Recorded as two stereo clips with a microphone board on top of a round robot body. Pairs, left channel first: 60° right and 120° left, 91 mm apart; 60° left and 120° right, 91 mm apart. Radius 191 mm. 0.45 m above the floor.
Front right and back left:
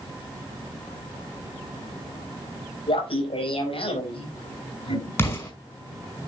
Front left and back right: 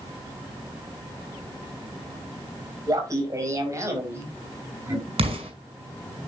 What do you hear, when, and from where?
2.9 s laughter: 70° right, 4 m; by 5.1 s 55° right, 4.5 m
5.2 s an explosion: 125° right, 5 m